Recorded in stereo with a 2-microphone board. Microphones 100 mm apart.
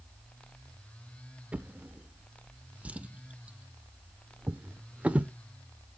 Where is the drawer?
15° right (ahead or behind), 0.6 m.